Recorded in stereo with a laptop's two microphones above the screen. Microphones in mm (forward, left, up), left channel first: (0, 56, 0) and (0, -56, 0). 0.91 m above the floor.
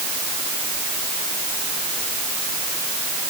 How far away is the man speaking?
I don't hear a man speaking.